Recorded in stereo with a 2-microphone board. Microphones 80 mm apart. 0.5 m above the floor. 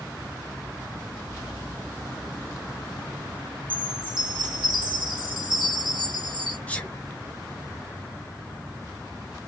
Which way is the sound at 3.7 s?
80° right.